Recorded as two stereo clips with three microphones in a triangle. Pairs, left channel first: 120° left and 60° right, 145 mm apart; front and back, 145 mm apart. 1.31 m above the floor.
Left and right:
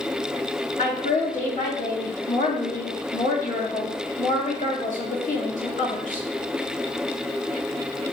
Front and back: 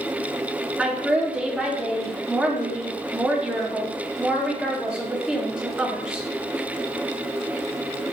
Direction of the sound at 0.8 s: 95° left.